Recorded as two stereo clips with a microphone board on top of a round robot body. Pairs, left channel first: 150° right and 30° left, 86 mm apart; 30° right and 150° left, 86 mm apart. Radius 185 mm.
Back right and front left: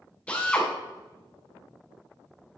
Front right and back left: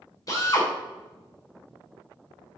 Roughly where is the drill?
Right.